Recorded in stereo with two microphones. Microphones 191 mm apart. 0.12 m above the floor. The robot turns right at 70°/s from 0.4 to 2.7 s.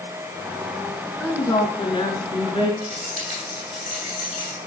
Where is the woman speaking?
15° left, 1.4 m; by 2.7 s 120° left, 1.4 m.